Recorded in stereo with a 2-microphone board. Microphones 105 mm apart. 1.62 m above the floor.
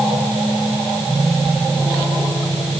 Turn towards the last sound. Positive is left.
No sound to turn to.